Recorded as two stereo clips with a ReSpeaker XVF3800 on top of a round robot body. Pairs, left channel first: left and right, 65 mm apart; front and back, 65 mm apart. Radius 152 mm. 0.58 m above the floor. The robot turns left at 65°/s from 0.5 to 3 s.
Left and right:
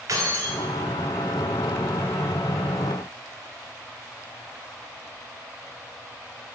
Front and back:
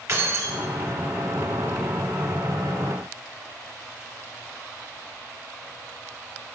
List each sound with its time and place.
0.1 s keys jangling: 135° right, 2 m; by 0.6 s 140° right, 2 m